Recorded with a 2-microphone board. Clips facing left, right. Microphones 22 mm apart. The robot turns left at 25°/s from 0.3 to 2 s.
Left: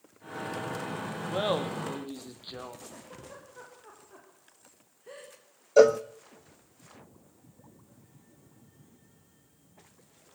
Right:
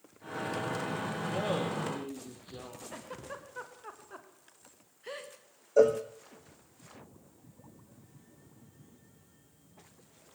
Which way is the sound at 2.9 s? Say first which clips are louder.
Right 3 dB; 65° right (ahead or behind).